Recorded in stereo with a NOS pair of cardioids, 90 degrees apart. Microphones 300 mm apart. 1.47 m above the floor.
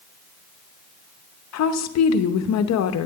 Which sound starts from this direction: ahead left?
A woman speaking, at 1.5 s.